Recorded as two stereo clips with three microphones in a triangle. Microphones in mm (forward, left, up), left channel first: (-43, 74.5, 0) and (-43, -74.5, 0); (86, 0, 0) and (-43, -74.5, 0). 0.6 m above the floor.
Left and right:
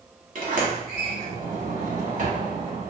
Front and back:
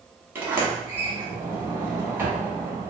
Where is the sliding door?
75° right, 0.9 m.